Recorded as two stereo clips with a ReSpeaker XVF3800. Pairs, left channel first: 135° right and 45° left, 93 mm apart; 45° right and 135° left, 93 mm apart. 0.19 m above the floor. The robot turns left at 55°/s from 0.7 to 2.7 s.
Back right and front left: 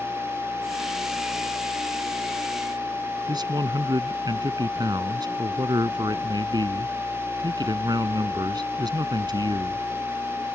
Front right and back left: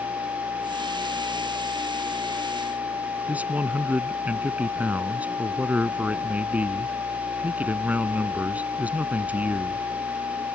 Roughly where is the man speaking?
Ahead left.